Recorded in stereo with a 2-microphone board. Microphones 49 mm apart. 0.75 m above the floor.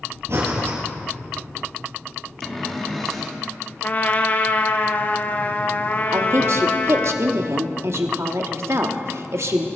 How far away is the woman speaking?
About 1.1 m.